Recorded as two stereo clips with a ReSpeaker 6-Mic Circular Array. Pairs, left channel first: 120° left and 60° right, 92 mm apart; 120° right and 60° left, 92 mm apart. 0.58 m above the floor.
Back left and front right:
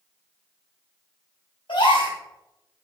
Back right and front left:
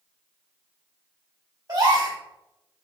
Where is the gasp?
100° left, 3 m.